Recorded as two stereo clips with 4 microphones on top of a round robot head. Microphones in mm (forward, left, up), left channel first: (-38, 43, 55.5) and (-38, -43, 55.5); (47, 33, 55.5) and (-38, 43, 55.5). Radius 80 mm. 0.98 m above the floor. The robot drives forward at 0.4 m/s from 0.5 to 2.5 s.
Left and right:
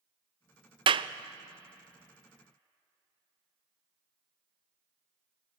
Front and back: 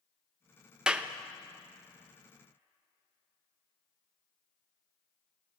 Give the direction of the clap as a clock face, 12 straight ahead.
3 o'clock.